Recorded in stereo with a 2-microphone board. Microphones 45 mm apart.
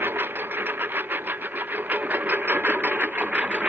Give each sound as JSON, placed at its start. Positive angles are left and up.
{"t": 0.0, "sound": "a lawn mower", "side_deg": -55}